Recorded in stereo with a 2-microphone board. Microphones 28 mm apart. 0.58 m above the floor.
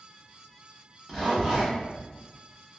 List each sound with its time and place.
1.1 s a zipper: 15° right (ahead or behind), 1.0 m